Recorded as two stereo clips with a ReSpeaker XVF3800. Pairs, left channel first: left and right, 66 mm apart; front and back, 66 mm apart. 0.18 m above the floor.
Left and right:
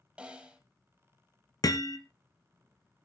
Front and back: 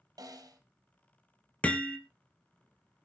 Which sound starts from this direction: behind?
A snare drum, at 0.2 s.